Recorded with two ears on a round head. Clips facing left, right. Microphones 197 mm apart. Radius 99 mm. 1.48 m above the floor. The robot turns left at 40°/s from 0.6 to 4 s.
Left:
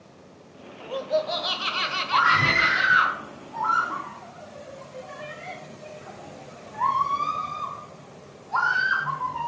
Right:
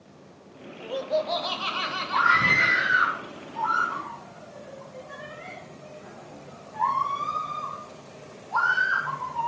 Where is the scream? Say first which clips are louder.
Left 2 dB; 60° left (ahead or behind), 4.5 m; by 9.5 s 45° left (ahead or behind), 4.5 m.